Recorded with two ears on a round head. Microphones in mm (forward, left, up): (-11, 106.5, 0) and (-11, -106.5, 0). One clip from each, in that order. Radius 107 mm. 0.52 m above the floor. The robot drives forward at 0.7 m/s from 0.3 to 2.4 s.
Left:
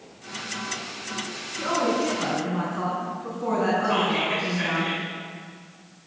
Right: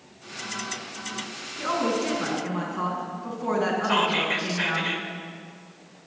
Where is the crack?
No crack in this recording.